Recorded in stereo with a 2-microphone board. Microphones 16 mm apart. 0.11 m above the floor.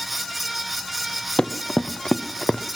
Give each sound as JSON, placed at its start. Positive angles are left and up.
{"t": 1.4, "sound": "running footsteps", "side_deg": 60, "distance_m": 1.1}